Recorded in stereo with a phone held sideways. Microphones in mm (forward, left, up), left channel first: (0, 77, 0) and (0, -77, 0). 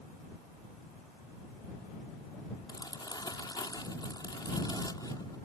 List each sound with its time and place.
2.7 s crumpling: 25° left (ahead or behind)